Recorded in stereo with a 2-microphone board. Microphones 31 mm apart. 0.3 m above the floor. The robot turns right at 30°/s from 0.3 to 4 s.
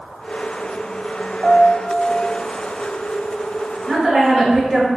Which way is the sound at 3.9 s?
15° right (ahead or behind).